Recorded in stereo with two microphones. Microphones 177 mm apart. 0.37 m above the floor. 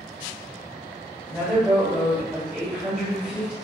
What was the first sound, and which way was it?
A woman speaking, 5° right (ahead or behind).